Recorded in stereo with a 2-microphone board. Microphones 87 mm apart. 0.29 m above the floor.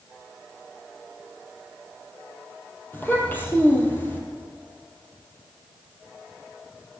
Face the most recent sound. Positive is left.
turn(degrees=25)  # may be behind; listen again after turning